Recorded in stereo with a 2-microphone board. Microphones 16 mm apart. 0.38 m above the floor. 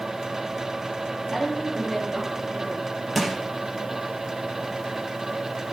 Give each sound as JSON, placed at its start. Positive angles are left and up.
{"t": 1.3, "sound": "a woman speaking", "side_deg": 35, "distance_m": 7.5}
{"t": 3.1, "sound": "crushing", "side_deg": 0, "distance_m": 4.5}